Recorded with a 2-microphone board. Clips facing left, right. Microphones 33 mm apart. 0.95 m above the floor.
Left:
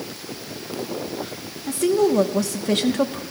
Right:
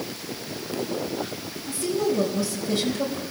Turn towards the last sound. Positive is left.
turn(degrees=75)  # may be behind; listen again after turning